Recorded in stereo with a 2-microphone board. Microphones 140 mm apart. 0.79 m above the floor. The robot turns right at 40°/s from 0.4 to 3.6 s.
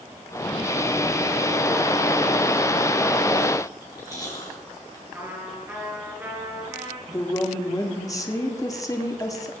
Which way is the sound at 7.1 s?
25° left (ahead or behind).